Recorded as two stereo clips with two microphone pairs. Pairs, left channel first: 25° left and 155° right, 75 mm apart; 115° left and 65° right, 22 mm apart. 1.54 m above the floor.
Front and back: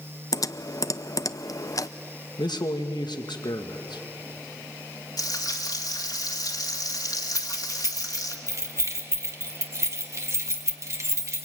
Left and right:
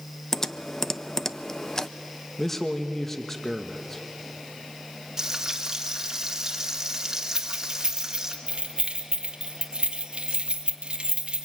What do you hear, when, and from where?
0.3 s typing on a keyboard: 50° left, 0.6 m
2.4 s a man speaking: 35° left, 1.5 m
5.2 s frying: straight ahead, 2.0 m
7.3 s keys jangling: 110° right, 1.7 m